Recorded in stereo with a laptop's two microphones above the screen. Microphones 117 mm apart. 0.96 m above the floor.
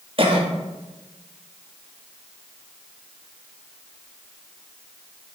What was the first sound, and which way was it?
A cough, 50° right (ahead or behind).